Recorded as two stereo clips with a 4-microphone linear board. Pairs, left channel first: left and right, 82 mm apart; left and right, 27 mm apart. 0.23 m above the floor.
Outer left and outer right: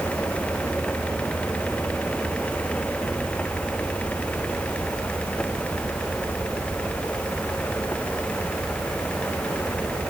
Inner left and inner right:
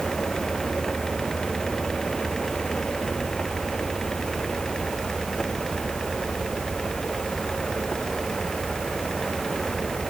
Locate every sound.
Only background noise.